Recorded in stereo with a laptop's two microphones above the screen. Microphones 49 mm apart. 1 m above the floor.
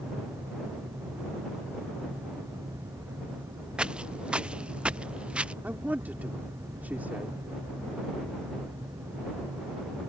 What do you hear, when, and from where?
0.0 s a fan: 80° right
3.8 s footsteps: 20° right (ahead or behind)
5.6 s a man speaking: 35° right (ahead or behind)